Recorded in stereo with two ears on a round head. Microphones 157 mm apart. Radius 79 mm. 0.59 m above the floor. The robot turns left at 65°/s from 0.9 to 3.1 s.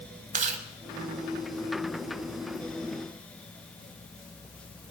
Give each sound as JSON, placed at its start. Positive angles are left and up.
{"t": 0.3, "sound": "chewing", "side_deg": -45, "distance_m": 1.0}